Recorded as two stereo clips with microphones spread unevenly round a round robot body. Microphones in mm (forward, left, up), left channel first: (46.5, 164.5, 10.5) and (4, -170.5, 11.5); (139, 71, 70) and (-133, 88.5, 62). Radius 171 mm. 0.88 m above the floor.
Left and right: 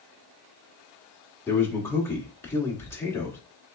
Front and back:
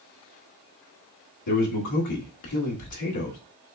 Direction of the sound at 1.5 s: Straight ahead.